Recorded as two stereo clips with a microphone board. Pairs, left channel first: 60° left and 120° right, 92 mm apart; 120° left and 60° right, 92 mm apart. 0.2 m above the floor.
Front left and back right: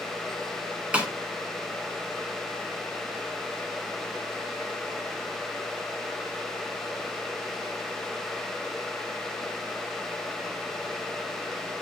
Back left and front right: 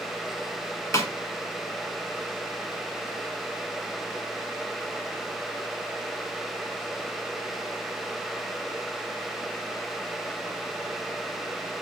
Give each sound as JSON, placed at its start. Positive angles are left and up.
{"t": 0.9, "sound": "a snare drum", "azimuth_deg": 165, "distance_m": 0.8}